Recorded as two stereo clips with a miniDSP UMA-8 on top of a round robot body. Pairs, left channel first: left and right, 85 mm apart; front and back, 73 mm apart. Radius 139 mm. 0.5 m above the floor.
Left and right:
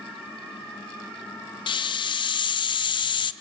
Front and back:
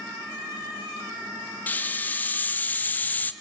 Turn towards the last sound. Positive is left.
turn(degrees=65)